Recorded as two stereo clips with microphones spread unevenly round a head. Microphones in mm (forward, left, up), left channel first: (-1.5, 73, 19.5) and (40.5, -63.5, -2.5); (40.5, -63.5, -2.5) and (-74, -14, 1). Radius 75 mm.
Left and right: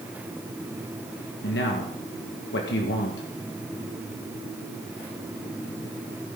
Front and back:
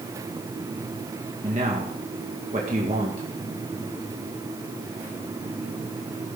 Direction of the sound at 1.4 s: 105° left.